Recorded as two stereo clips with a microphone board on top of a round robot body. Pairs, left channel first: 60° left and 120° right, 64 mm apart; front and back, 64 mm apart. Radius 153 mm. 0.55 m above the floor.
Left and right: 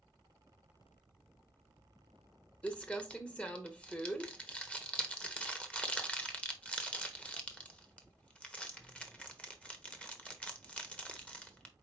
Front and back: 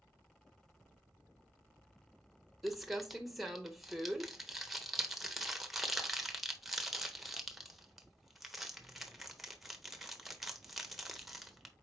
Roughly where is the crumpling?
Left.